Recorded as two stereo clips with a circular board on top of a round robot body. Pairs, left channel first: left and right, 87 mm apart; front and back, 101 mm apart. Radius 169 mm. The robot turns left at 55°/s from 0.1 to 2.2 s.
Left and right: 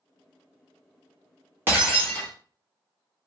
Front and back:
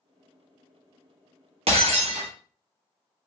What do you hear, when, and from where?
1.7 s breaking glass: 160° right, 1.3 m; by 2.3 s 170° left, 1.3 m